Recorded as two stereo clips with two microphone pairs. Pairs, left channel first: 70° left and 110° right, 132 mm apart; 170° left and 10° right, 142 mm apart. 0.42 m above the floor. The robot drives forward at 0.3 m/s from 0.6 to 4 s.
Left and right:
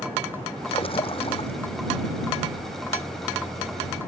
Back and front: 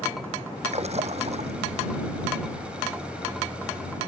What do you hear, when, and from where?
0.7 s a splash: 25° left